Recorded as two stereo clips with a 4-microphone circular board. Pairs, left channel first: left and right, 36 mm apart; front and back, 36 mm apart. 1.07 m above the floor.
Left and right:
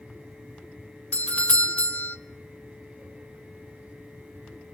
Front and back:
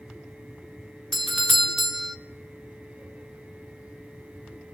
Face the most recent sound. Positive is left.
turn(degrees=95)